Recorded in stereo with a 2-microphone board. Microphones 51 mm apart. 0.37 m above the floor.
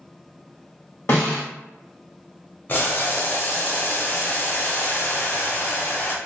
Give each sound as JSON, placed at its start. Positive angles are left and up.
{"t": 1.1, "sound": "a snare drum", "side_deg": 50, "distance_m": 1.5}
{"t": 2.7, "sound": "boiling", "side_deg": 45, "distance_m": 0.8}